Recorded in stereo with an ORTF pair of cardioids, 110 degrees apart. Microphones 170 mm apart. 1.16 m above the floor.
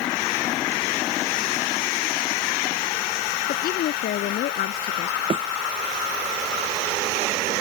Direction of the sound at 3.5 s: 65° left.